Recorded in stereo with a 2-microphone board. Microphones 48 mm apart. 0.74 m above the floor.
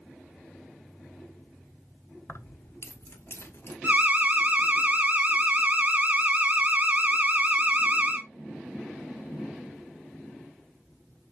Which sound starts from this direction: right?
An alarm, at 3.8 s.